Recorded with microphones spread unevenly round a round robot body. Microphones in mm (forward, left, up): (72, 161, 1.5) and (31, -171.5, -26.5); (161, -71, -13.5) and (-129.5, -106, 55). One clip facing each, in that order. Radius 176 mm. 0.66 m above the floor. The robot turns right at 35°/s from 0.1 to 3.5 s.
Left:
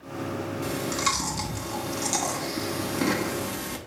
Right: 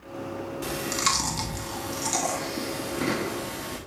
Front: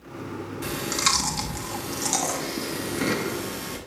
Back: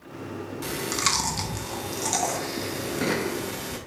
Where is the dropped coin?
I don't hear a dropped coin.